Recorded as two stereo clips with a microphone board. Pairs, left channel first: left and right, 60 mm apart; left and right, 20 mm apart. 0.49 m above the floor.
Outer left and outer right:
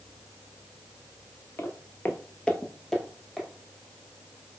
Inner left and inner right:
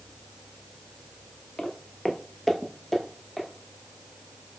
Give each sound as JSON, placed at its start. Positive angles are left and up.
{"t": 1.6, "sound": "footsteps", "side_deg": 40, "distance_m": 0.6}